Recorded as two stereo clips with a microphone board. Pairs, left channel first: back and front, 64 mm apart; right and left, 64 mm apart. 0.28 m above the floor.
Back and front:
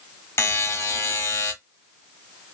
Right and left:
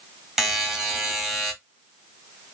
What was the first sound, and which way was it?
A buzzer, 170° left.